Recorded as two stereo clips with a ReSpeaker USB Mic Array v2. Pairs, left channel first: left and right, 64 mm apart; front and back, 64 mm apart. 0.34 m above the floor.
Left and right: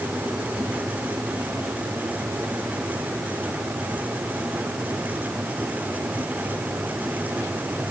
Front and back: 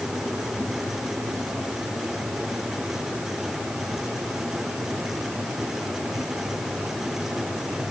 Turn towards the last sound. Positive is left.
No sound to turn to.